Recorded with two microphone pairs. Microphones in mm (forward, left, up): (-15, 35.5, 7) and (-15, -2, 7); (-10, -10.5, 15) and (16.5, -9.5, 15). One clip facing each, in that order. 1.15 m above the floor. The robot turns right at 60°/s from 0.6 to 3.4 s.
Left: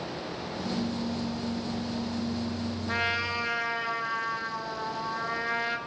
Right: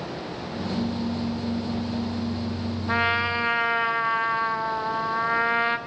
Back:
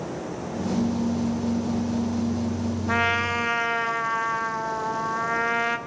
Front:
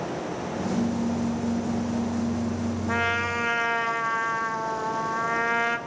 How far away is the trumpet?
About 0.6 m.